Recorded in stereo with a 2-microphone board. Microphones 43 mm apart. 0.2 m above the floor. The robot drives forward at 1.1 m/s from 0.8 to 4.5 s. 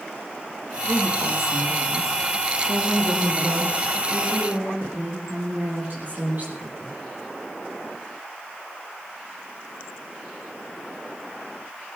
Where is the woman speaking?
70° right (ahead or behind), 3.5 m; by 7.0 s 40° right (ahead or behind), 5 m.